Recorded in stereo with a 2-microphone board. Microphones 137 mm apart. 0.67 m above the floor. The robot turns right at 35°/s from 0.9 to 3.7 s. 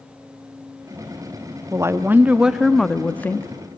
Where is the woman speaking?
35° right, 0.7 m; by 3.5 s 25° left, 0.7 m.